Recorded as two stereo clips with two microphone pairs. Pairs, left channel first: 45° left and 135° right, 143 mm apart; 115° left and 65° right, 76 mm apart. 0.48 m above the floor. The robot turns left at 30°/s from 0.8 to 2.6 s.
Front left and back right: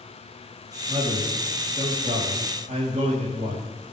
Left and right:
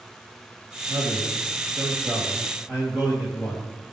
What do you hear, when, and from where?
0.9 s a man speaking: 90° right, 3 m; by 3.7 s 140° right, 3 m